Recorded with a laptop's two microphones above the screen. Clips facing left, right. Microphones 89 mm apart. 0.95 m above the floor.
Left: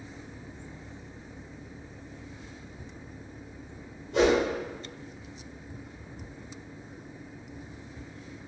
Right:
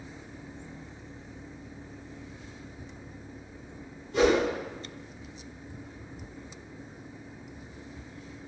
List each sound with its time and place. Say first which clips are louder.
4.1 s a whoosh: even; 80° left, 1.7 m